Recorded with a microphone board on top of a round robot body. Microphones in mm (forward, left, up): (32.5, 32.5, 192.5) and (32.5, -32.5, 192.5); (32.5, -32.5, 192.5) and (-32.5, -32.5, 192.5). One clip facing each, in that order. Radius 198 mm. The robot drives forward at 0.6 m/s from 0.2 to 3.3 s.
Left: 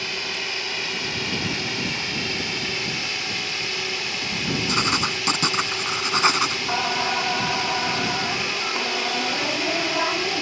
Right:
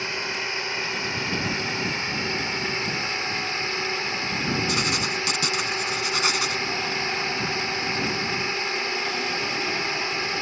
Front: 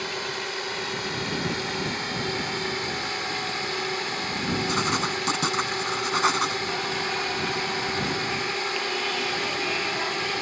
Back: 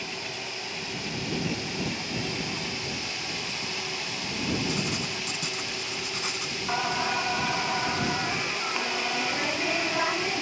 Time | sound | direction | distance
0.0 | a drone | 25° right | ?
4.7 | writing | 35° left | ?
6.7 | singing | 115° left | ?